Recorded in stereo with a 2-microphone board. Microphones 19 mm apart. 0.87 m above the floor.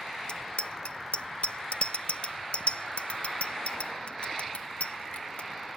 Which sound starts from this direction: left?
A bicycle bell, at 0.3 s.